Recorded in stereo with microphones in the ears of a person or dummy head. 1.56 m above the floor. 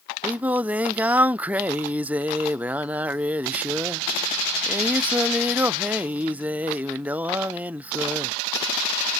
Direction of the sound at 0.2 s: 10° right (ahead or behind).